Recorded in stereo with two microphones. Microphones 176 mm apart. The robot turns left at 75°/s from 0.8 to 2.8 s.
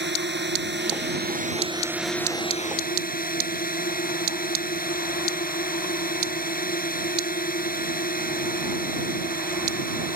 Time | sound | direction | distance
0.0 | a drone | 85° right | ?